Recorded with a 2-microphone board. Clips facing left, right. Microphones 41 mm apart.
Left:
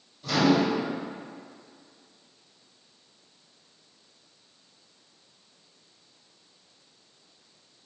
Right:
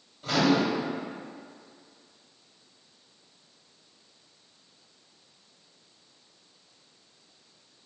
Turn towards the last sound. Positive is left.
turn(degrees=-40)  # may be behind; listen again after turning